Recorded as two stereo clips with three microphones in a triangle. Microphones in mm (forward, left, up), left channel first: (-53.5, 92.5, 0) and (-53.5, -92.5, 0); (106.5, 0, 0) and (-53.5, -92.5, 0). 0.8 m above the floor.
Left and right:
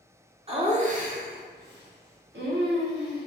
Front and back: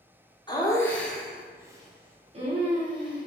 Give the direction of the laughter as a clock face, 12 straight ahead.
1 o'clock.